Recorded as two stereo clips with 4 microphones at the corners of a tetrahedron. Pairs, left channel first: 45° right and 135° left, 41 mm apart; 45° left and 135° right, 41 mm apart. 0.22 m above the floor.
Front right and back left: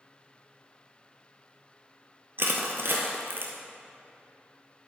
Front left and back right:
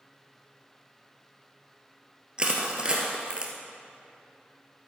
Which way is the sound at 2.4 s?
155° left.